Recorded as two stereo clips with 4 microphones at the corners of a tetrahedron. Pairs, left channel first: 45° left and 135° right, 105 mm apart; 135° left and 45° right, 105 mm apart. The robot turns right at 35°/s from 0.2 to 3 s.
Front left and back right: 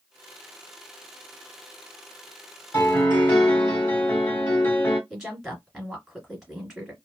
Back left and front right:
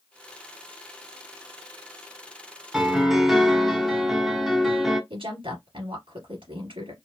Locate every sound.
2.7 s a piano: 30° left, 1.4 m; by 5.0 s 40° left, 1.4 m
5.1 s a woman speaking: 50° right, 2.5 m